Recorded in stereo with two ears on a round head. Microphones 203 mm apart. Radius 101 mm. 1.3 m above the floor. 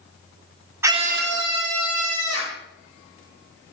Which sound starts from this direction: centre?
A scream, at 0.8 s.